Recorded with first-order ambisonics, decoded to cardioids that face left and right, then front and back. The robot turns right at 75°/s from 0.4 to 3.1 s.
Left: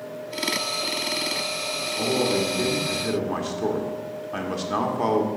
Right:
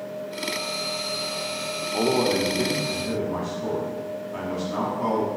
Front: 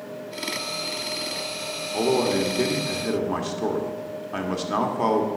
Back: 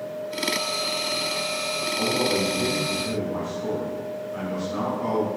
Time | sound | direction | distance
1.9 | a man speaking | 55° right | 1.4 m